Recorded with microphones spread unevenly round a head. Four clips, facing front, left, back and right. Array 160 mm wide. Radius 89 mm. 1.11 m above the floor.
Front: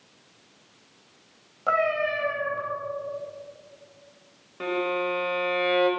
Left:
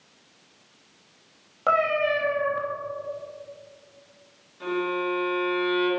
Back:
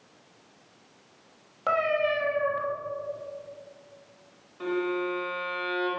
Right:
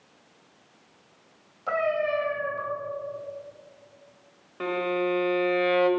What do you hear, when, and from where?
1.7 s a cat meowing: 90° left, 2.5 m
4.6 s a violin: 50° right, 1.7 m